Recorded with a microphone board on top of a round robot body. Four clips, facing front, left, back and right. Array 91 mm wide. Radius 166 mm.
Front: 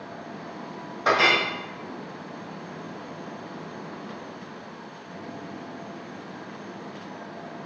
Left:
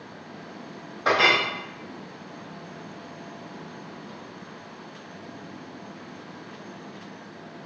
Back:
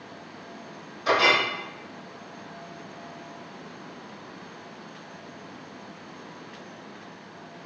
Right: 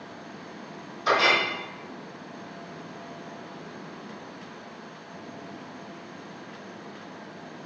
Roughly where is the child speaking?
No child speaking in this recording.